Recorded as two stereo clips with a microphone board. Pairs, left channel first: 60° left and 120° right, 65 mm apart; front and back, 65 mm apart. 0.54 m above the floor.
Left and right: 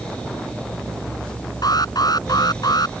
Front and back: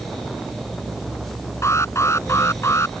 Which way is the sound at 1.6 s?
45° left.